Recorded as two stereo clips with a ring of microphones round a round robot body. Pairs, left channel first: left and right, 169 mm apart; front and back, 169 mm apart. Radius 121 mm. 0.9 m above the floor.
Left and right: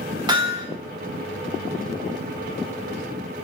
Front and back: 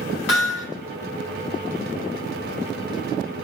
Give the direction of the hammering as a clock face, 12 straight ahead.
1 o'clock.